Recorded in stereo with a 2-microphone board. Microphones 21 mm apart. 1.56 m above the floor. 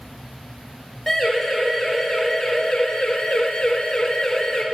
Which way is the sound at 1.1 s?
20° left (ahead or behind).